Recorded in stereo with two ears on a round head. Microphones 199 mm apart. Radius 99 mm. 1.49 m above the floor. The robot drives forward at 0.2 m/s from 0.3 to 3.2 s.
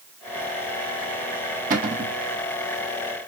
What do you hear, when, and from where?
1.7 s a cupboard door: 40° right (ahead or behind), 1.0 m; by 2.1 s 35° right (ahead or behind), 1.1 m